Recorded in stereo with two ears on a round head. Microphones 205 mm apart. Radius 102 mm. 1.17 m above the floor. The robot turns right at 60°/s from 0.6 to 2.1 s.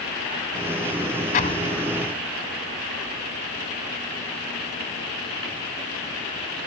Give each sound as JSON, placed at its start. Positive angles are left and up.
{"t": 1.3, "sound": "an explosion", "azimuth_deg": 135}